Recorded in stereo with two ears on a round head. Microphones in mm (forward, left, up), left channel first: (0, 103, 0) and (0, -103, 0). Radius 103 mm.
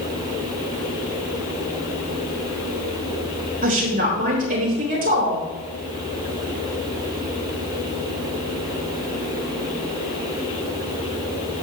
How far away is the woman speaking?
About 4 m.